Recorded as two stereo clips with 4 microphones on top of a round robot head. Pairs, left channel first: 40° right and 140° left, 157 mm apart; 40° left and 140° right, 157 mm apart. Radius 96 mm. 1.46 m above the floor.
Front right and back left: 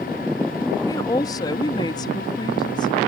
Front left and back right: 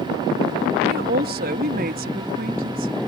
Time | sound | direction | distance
0.9 | a woman speaking | 110° right | ?